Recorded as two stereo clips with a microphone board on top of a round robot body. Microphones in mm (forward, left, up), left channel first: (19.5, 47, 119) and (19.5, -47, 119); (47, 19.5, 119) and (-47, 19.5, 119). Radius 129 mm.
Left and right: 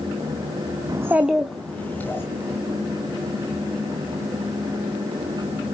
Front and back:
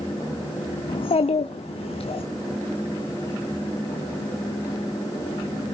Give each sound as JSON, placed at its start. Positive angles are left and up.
{"t": 0.9, "sound": "a child speaking", "azimuth_deg": -35, "distance_m": 0.6}